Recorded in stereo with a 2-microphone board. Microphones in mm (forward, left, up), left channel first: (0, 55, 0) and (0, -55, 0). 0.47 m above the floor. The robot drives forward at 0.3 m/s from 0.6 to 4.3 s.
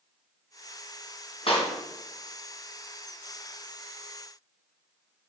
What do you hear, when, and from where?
1.5 s a clap: 60° left (ahead or behind), 2.5 m